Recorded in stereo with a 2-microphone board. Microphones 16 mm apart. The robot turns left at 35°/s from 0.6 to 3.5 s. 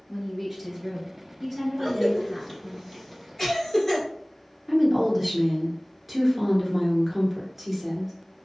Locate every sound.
0.1 s a woman speaking: 20° right (ahead or behind), 1.2 m; by 2.8 s 15° left (ahead or behind), 1.2 m
1.8 s a cough: centre (ahead or behind), 1.5 m; by 4.0 s 25° left (ahead or behind), 1.5 m
4.7 s a woman speaking: 20° right (ahead or behind), 1.1 m